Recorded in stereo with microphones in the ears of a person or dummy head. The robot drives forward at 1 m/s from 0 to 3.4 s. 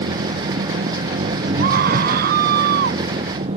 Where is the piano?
No piano in this recording.